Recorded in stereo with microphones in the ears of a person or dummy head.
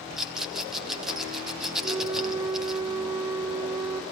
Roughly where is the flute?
Centre.